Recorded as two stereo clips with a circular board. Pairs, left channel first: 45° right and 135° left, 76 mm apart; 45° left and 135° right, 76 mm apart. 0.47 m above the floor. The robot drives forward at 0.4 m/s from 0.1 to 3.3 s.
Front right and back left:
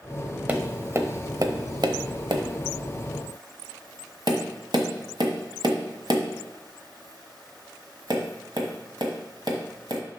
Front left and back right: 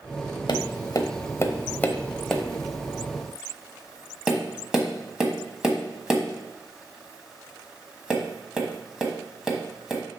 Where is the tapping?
65° left, 0.7 m; by 10.0 s 145° left, 1.1 m.